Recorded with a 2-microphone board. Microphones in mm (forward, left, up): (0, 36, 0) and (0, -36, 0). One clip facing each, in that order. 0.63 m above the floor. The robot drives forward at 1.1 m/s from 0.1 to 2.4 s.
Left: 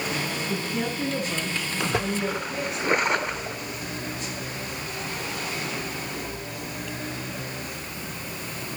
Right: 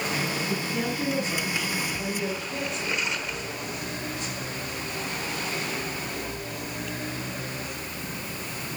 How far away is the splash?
About 0.8 m.